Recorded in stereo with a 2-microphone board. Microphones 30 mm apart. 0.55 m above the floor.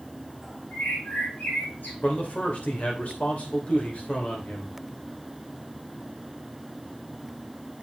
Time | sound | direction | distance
0.7 | a bird | 80° left | 5.5 m
2.0 | a man speaking | 50° left (ahead or behind) | 2.5 m